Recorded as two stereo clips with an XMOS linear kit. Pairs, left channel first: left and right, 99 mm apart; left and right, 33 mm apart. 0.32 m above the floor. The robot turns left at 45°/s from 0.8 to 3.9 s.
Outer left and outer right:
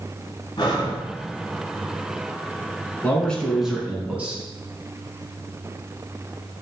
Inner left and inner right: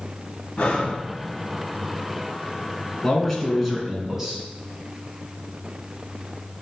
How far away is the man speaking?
About 3 m.